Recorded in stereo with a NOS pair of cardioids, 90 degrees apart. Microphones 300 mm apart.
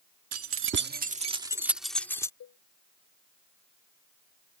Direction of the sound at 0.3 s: 55° right.